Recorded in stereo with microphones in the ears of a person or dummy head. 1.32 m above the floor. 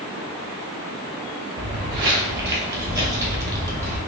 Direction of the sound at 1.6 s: 25° right (ahead or behind).